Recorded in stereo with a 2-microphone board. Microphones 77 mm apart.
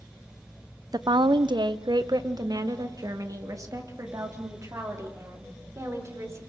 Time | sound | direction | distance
0.9 | a woman speaking | 60° right (ahead or behind) | 0.7 m